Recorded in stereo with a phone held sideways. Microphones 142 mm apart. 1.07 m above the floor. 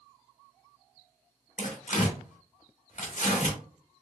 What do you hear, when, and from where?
1.6 s tearing paper: 60° left (ahead or behind), 1.5 m